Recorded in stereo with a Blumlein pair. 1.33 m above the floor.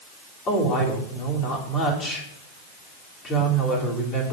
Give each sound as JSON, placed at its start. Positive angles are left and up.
{"t": 0.5, "sound": "a woman speaking", "azimuth_deg": 30, "distance_m": 3.0}